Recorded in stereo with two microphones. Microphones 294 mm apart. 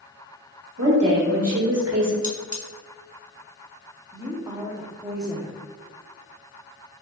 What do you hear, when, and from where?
0.8 s a woman speaking: 55° right (ahead or behind), 1.2 m
2.2 s cutlery clinking: 25° left (ahead or behind), 0.6 m
4.1 s a woman speaking: 10° right (ahead or behind), 0.8 m